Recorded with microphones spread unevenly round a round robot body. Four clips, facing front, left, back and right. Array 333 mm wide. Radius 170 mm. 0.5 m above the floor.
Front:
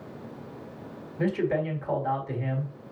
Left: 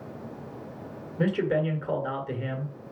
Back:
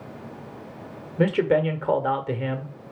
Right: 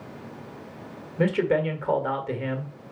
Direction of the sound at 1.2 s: 165° right.